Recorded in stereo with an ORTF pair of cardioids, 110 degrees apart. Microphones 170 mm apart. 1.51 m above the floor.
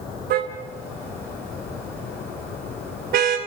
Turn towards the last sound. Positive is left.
turn(degrees=-65)